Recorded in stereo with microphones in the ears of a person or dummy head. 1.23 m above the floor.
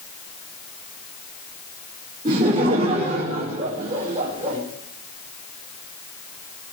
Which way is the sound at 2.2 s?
25° right (ahead or behind).